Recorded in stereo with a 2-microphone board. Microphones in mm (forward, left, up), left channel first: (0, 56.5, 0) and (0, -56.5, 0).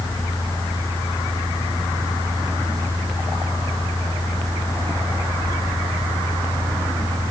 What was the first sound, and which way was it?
Only background noise.